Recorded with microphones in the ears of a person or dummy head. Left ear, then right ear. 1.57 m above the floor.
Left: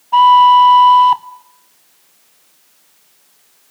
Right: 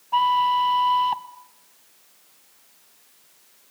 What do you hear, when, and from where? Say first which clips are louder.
0.1 s a flute: left 13 dB; 10° left (ahead or behind), 0.8 m